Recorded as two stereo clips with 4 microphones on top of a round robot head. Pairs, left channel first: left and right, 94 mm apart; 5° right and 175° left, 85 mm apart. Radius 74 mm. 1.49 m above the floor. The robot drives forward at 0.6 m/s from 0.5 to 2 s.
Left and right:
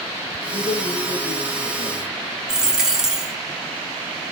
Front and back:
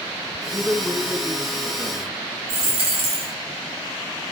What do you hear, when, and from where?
0.5 s a man speaking: 85° left, 1.8 m; by 2.2 s 115° left, 2.0 m
2.5 s a dropped coin: 175° right, 1.3 m